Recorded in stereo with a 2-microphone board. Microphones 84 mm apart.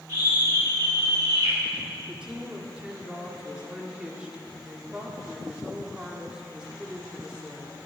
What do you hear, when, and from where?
0.1 s a scream: 55° right (ahead or behind), 2 m; by 1.6 s 75° right (ahead or behind), 2.5 m
2.1 s a woman speaking: 10° right (ahead or behind), 1.5 m